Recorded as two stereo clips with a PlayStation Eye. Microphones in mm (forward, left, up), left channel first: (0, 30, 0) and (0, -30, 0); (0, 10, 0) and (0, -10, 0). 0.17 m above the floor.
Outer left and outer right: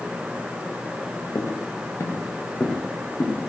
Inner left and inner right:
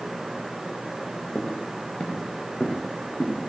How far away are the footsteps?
About 1.4 m.